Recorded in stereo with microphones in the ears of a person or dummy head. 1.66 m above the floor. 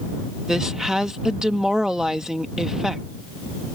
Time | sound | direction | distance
0.5 | a woman speaking | 5° right (ahead or behind) | ?